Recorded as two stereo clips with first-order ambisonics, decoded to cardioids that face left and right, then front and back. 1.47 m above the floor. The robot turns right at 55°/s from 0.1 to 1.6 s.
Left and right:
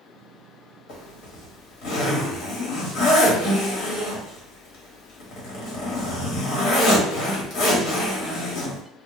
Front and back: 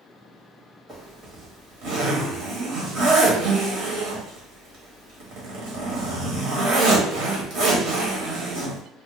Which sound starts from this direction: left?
A zipper, at 0.9 s.